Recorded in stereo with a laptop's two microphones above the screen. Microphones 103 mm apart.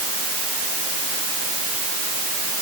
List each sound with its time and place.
Only background noise.